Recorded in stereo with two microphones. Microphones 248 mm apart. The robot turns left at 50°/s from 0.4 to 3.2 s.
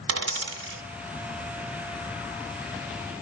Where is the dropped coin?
75° right (ahead or behind), 1.5 m; by 0.8 s 55° right (ahead or behind), 1.5 m.